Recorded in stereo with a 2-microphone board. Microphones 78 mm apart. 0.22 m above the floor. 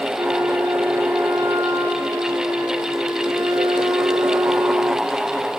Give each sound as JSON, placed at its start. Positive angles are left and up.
{"t": 0.1, "sound": "a flute", "side_deg": -30, "distance_m": 1.0}